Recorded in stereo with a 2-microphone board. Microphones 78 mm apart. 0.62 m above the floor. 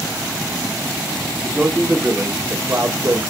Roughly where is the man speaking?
Centre.